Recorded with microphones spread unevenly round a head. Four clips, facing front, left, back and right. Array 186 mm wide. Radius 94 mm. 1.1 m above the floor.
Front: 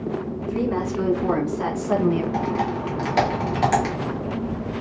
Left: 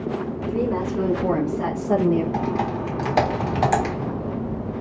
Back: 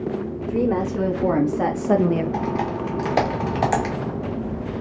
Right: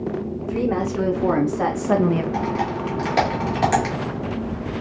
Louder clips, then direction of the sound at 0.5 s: Right 1 dB, back 3 dB; 155° right.